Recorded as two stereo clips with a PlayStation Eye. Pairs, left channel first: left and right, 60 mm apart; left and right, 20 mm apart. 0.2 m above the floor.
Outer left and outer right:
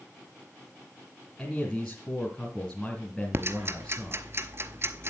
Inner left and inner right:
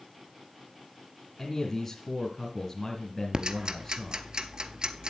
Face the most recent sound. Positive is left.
turn(degrees=-45)  # may be behind; listen again after turning